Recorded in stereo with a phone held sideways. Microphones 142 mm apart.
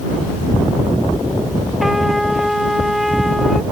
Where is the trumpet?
Centre (ahead or behind).